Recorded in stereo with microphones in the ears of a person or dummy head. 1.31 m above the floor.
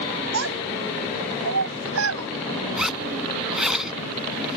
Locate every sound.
0.3 s a child speaking: 90° right; by 2.3 s 85° right
2.8 s a zipper: 5° right (ahead or behind)